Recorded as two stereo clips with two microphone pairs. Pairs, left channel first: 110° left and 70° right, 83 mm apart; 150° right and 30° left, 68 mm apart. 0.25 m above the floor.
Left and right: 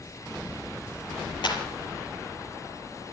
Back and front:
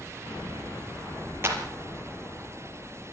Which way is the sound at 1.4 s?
85° left.